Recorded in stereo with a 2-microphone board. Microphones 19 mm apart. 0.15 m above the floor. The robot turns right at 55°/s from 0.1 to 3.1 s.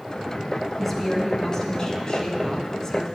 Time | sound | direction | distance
0.8 | a woman speaking | 15° left | 1.2 m